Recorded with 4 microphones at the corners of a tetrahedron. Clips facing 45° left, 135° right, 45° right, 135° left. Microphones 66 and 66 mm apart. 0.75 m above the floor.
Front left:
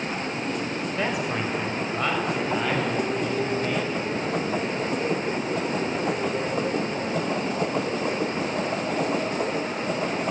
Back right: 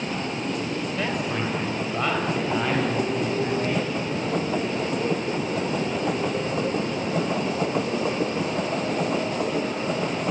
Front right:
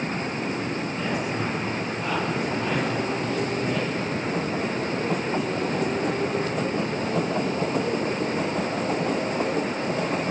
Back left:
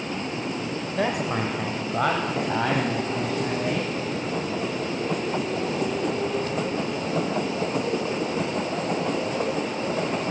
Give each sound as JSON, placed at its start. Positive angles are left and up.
{"t": 0.9, "sound": "a man speaking", "azimuth_deg": 125, "distance_m": 3.5}